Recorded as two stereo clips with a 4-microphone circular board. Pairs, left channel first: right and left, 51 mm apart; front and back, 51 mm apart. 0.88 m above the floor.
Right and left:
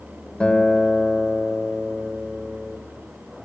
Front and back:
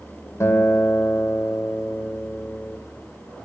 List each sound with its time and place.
0.4 s a guitar: 20° right, 2.5 m